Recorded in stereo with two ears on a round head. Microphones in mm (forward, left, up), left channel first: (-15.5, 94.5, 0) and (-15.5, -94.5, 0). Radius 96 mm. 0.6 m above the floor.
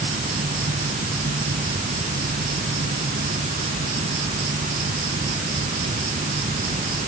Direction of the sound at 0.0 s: 35° right (ahead or behind).